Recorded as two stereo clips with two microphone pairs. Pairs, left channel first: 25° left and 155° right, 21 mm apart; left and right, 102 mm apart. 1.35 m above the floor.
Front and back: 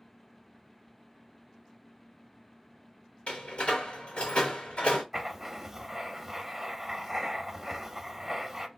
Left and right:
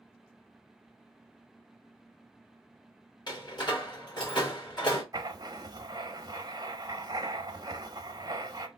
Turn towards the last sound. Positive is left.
turn(degrees=-85)